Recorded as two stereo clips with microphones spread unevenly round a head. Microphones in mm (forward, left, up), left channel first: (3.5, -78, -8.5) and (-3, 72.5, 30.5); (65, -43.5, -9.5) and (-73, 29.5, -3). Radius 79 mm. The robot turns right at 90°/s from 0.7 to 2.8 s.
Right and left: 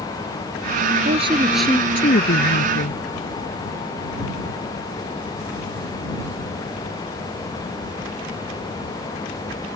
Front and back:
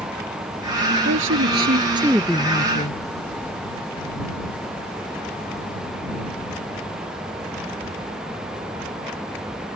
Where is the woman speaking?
135° left; by 3.0 s 70° right.